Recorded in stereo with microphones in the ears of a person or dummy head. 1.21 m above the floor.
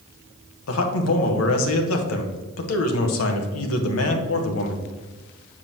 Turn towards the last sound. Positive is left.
turn(degrees=75)  # may be behind; listen again after turning